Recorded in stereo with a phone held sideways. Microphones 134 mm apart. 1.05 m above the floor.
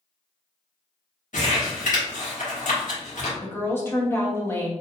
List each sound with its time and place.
1.3 s crumpling: 70° left (ahead or behind), 1.4 m
3.4 s a woman speaking: 20° left (ahead or behind), 1.1 m